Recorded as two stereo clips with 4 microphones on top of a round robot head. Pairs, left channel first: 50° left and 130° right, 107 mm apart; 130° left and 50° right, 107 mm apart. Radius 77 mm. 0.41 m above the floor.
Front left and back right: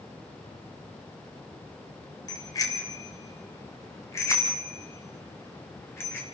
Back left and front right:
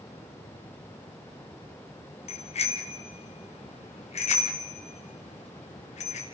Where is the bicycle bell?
105° left, 3 m; by 6.2 s 120° left, 5 m.